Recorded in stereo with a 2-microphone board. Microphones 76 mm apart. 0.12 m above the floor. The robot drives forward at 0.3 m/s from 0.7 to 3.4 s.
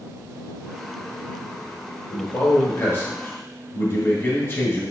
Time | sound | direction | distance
2.1 | a man speaking | 30° left (ahead or behind) | 1.5 m